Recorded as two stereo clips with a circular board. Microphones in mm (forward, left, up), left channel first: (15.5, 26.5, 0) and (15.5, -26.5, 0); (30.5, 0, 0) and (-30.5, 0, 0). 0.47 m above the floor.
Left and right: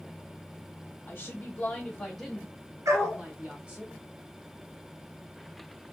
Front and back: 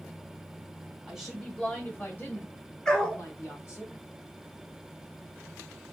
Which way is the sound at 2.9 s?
70° right.